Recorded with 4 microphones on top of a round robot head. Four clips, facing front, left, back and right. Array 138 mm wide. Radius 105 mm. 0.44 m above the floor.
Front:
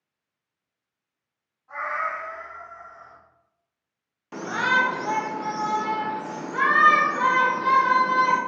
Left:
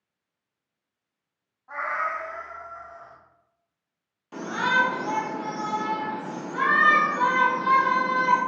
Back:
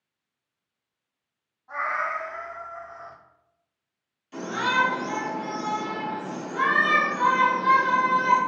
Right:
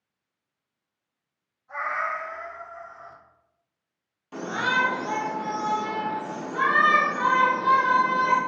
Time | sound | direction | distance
1.7 | a cat meowing | 110° left | 2.5 m
4.3 | a shout | straight ahead | 1.5 m